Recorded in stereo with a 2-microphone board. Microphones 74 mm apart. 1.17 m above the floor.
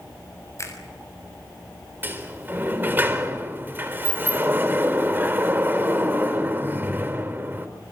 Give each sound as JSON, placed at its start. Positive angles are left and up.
{"t": 0.6, "sound": "a finger snap", "side_deg": 45, "distance_m": 6.5}
{"t": 2.0, "sound": "a sliding door", "side_deg": -25, "distance_m": 4.0}